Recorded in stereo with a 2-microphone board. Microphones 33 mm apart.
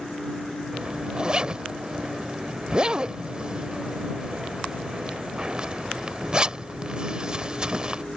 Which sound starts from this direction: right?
A zipper, at 0.7 s.